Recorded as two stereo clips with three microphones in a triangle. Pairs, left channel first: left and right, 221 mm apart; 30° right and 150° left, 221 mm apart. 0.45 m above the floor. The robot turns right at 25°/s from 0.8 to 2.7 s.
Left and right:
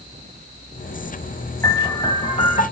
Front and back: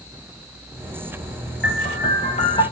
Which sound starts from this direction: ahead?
A piano, at 1.6 s.